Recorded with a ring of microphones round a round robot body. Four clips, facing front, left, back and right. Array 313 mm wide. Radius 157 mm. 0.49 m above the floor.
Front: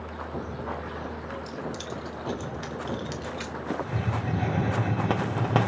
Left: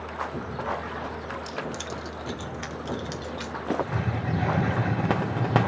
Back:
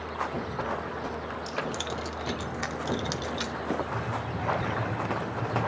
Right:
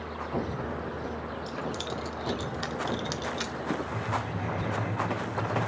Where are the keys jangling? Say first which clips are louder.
Even, back 2 dB; 120° left, 0.7 m; by 3.5 s 145° right, 1.2 m.